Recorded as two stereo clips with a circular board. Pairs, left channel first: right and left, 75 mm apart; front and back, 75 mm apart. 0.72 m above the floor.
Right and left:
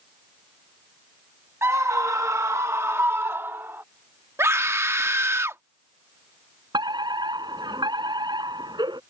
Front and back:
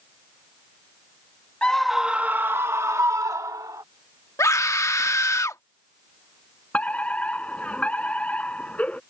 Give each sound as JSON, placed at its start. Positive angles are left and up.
{"t": 1.6, "sound": "a scream", "azimuth_deg": 70}
{"t": 4.4, "sound": "a scream", "azimuth_deg": 40}
{"t": 6.7, "sound": "a fire alarm", "azimuth_deg": 75}